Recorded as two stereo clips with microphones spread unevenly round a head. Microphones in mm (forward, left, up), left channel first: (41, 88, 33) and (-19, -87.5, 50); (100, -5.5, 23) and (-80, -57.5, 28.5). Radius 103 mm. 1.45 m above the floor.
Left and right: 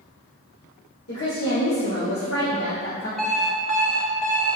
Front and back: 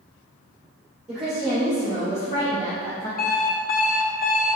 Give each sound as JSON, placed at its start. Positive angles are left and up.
{"t": 1.1, "sound": "a woman speaking", "azimuth_deg": 110, "distance_m": 2.0}
{"t": 3.2, "sound": "an alarm clock", "azimuth_deg": -20, "distance_m": 1.0}